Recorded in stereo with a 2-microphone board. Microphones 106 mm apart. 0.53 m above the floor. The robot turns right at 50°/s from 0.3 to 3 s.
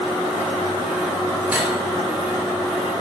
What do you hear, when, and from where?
1.5 s cutlery clinking: 15° right (ahead or behind), 1.0 m; by 1.8 s 5° right (ahead or behind), 1.0 m